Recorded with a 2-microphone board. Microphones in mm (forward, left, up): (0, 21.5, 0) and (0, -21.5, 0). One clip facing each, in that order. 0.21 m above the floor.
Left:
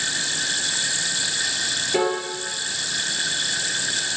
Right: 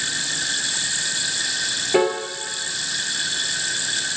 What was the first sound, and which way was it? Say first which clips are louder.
A piano: right 3 dB; 20° right (ahead or behind).